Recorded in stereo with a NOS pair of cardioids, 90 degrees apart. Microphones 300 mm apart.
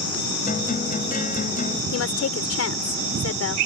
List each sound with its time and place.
0.5 s a guitar: 25° left
1.9 s a woman speaking: 55° left